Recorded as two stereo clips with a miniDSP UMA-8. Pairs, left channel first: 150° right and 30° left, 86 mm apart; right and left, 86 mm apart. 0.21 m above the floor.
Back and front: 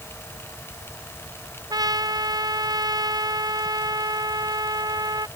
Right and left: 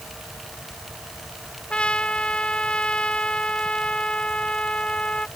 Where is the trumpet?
10° right.